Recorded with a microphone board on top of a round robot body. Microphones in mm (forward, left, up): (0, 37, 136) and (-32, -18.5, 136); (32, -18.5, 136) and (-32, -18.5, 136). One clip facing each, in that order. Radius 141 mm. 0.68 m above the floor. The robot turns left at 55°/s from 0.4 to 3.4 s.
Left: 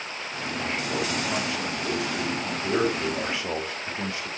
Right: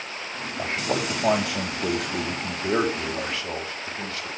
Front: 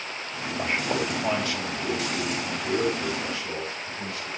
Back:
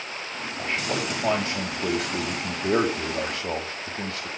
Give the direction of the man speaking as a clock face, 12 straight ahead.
2 o'clock.